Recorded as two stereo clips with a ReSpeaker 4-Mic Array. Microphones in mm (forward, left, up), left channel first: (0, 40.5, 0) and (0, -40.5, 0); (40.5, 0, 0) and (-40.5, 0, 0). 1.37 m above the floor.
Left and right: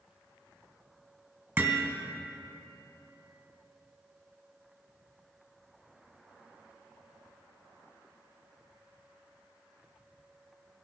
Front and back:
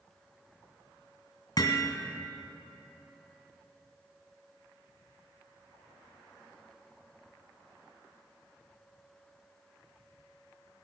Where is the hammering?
30° right, 2.5 m.